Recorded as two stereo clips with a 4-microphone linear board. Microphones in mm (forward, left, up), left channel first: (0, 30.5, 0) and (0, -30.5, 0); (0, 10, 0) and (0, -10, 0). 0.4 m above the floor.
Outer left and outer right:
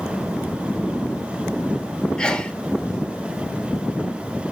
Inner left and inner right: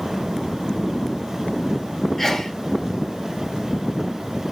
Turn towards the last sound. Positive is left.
turn(degrees=15)  # may be behind; listen again after turning